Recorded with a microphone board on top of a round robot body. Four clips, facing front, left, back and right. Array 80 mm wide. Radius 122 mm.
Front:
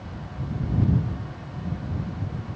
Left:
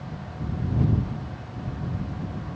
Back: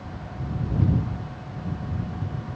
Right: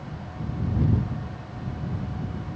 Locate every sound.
Only background noise.